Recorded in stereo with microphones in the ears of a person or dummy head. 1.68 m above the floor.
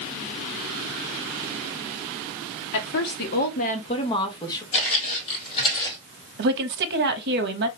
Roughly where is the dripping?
I don't hear dripping.